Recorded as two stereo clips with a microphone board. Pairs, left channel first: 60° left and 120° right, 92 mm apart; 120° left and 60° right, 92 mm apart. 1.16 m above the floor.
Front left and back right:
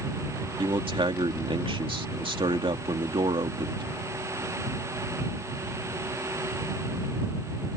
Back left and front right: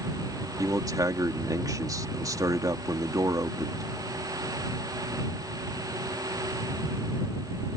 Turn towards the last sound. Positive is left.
turn(degrees=-110)